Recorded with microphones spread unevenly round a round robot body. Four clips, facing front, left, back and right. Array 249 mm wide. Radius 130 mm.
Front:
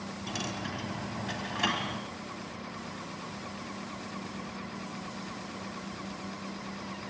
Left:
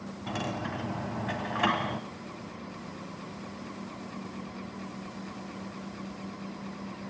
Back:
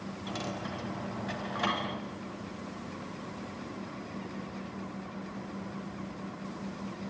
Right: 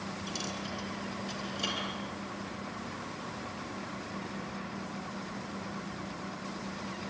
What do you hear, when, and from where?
0.3 s a dropped coin: 80° left, 1.6 m